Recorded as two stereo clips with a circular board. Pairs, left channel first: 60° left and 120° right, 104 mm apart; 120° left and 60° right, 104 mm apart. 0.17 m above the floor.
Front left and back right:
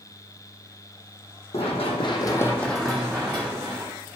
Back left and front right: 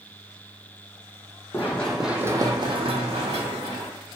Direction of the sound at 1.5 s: 50° left.